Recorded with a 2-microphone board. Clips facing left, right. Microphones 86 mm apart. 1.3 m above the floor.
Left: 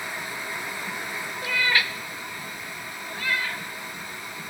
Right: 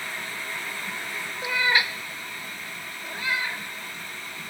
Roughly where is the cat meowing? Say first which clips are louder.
Right 1 dB; centre.